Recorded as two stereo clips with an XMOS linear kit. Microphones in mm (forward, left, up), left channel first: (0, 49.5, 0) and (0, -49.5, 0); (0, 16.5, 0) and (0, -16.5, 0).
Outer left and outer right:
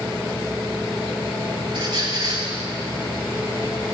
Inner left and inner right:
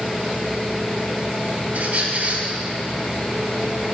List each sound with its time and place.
1.7 s a squeak: 45° right (ahead or behind), 6 m